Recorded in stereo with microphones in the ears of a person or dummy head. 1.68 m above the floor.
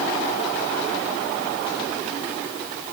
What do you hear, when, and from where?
Only background noise.